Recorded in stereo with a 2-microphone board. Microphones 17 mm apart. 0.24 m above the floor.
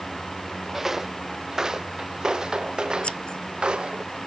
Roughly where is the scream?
No scream in this recording.